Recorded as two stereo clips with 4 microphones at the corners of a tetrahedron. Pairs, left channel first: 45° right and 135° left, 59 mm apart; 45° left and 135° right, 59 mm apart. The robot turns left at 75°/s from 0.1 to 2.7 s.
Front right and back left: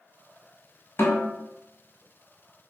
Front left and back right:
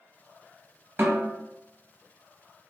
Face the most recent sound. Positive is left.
turn(degrees=145)